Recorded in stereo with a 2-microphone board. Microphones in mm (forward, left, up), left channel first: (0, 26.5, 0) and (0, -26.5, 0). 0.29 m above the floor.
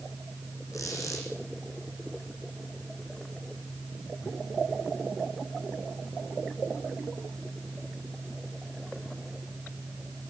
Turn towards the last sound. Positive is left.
turn(degrees=85)